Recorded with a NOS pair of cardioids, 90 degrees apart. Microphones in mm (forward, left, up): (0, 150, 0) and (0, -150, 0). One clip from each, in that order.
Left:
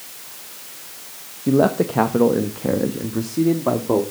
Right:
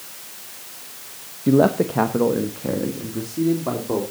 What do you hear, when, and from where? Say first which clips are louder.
1.5 s a man speaking: even; 10° right, 0.9 m; by 4.0 s 35° left, 2.5 m